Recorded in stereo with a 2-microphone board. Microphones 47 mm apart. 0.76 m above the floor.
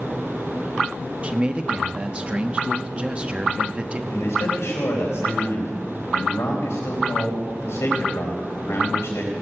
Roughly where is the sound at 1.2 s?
Right.